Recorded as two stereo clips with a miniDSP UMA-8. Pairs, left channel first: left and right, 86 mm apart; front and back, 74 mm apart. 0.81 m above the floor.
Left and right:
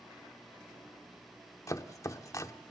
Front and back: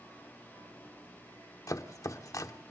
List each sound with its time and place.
1.7 s chopping: 40° left, 0.9 m